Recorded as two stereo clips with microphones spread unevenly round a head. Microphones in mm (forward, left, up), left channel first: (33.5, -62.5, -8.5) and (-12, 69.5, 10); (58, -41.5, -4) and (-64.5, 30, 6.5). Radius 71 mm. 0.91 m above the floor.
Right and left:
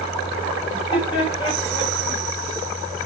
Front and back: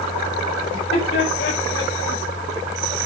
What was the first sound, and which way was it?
Laughter, 15° right.